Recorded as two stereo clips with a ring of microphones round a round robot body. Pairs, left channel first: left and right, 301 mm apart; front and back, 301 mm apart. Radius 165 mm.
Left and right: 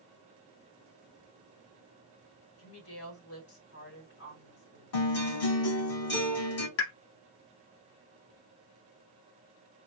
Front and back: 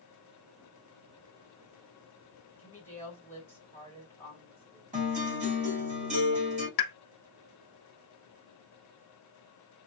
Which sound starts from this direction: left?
A woman speaking, at 2.6 s.